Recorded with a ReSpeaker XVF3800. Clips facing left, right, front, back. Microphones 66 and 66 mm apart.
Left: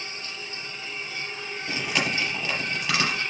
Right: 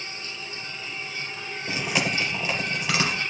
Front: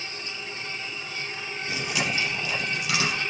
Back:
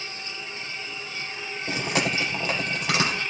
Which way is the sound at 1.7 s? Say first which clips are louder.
Right 1 dB, back 3 dB; 165° right.